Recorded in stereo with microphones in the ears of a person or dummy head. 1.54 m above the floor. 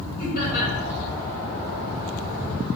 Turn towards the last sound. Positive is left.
turn(degrees=50)  # may be behind; listen again after turning